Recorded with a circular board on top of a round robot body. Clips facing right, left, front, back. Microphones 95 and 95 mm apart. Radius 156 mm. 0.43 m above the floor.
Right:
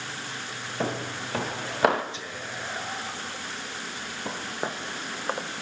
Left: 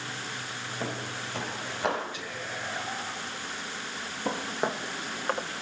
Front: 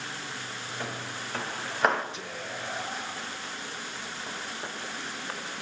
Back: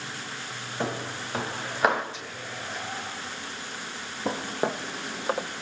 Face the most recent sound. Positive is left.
turn(degrees=-175)